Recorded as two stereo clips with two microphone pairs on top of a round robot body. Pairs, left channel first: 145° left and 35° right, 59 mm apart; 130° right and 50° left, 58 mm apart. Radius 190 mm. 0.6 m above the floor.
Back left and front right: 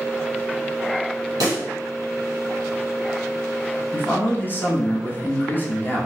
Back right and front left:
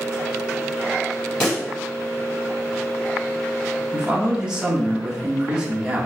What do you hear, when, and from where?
1.4 s a pop: 50° right, 0.9 m
3.9 s a man speaking: 130° left, 1.3 m